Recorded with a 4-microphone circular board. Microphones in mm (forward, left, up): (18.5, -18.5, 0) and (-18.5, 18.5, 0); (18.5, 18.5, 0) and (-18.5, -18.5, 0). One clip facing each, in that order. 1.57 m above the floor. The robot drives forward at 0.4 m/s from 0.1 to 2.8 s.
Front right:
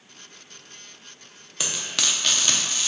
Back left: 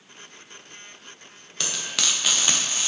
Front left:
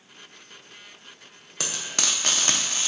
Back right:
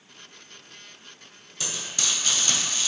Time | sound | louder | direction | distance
1.6 | frying | even, front left 2 dB | 35° left | 0.7 m